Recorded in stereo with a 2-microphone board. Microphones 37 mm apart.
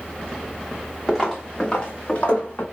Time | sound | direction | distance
1.1 | footsteps | 10° left (ahead or behind) | 1.3 m